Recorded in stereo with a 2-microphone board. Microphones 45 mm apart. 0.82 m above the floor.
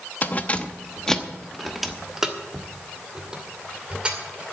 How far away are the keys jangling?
About 0.8 m.